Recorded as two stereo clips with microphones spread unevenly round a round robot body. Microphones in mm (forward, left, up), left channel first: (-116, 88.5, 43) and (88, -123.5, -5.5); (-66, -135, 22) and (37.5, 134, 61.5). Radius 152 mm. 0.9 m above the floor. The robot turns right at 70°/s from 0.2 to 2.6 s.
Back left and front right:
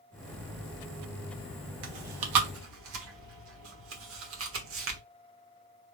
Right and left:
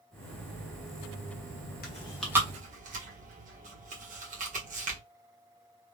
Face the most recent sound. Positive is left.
turn(degrees=5)